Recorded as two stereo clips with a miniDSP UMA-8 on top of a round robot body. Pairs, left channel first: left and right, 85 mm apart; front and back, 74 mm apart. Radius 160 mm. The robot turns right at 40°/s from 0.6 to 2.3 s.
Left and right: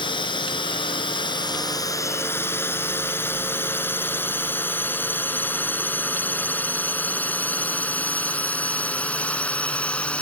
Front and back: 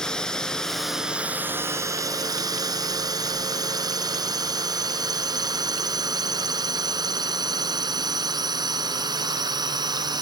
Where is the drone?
80° left; by 10.2 s 165° left.